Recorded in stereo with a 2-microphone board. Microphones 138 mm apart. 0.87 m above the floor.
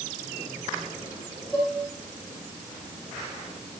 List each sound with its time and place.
1.5 s dishes clattering: centre (ahead or behind), 8.5 m